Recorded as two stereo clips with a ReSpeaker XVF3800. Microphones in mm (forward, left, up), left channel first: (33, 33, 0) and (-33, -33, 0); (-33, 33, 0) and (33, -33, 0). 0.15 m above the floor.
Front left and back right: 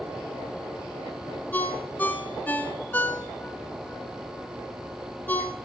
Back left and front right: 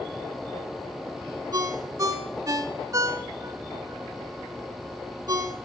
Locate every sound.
1.5 s a ringtone: 15° right, 1.1 m